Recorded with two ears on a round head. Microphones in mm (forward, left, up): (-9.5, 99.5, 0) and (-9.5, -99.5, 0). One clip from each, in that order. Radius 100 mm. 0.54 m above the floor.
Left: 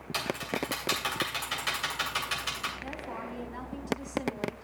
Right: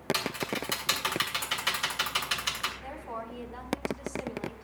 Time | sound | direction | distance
0.1 | typing on a keyboard | 20° right (ahead or behind) | 2.5 m
2.8 | a woman speaking | 5° right (ahead or behind) | 3.5 m